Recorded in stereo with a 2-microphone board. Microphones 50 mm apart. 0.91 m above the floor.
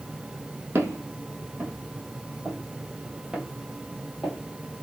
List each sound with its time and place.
0.8 s footsteps: 60° right (ahead or behind), 1.7 m; by 4.4 s 5° left (ahead or behind), 1.9 m